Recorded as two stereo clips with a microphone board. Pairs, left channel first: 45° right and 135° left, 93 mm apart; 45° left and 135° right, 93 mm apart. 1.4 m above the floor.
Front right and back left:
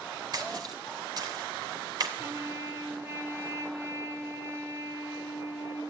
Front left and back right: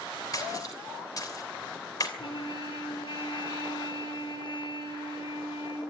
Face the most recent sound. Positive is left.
turn(degrees=70)